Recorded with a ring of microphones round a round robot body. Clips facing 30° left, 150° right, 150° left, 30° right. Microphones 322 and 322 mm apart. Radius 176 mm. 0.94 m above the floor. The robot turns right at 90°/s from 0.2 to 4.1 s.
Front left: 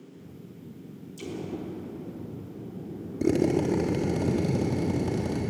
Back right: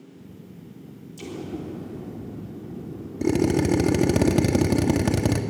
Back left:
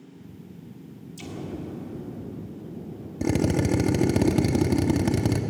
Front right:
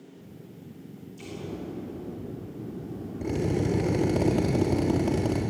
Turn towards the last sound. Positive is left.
turn(degrees=-160)